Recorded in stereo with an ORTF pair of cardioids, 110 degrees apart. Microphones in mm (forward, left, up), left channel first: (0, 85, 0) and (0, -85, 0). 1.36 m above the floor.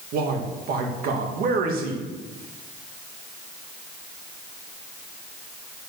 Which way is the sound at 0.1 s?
65° right.